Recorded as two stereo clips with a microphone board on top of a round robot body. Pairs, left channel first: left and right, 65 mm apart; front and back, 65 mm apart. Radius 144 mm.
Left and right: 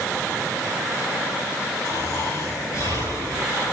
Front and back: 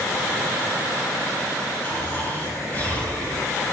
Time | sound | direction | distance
1.8 | snoring | 60° left | 4.5 m